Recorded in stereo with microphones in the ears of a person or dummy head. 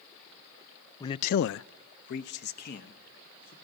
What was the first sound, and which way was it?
A man speaking, 20° left (ahead or behind).